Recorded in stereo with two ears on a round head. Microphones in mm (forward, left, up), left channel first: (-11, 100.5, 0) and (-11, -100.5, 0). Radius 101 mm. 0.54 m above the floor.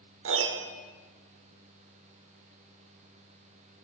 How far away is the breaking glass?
No breaking glass in this recording.